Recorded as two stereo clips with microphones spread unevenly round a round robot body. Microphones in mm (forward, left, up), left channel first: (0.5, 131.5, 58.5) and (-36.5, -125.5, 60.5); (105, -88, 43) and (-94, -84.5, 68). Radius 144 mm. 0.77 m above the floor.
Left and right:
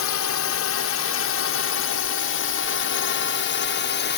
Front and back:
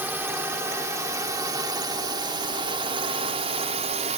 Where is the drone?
95° left; by 4.2 s 120° left.